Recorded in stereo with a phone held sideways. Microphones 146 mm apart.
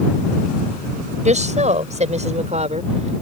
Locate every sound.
1.2 s a woman speaking: 55° right (ahead or behind); by 3.2 s 50° right (ahead or behind)